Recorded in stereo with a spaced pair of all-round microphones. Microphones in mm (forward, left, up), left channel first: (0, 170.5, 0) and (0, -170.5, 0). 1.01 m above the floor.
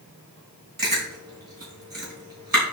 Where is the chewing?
85° right, 4 m.